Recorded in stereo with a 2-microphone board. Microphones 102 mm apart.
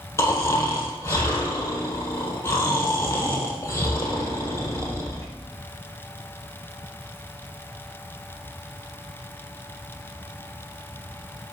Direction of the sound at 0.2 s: 30° left (ahead or behind).